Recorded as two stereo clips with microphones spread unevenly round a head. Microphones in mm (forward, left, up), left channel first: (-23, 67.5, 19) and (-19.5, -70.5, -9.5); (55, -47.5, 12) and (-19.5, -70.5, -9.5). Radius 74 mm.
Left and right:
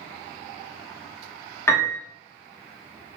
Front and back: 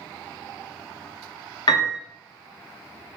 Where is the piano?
20° left, 0.9 m.